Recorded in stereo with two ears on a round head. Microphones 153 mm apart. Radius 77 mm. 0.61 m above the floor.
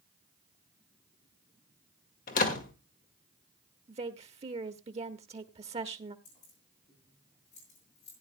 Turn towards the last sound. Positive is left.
turn(degrees=40)  # may be behind; listen again after turning